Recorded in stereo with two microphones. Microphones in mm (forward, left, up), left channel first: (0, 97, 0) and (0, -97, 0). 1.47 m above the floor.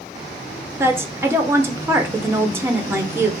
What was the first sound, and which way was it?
A woman speaking, 15° right (ahead or behind).